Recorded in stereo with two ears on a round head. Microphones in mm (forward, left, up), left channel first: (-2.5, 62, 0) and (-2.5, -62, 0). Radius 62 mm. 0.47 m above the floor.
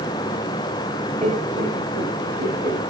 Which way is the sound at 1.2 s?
55° right (ahead or behind).